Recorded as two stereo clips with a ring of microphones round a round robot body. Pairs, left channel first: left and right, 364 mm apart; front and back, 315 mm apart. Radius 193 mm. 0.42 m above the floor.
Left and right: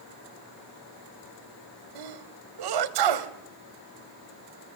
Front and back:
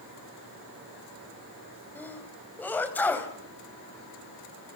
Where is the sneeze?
85° right, 2.5 m.